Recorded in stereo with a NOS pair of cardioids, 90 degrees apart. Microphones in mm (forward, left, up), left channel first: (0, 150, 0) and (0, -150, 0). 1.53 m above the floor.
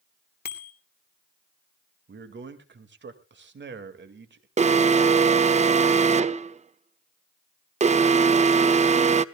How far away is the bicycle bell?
About 2.5 m.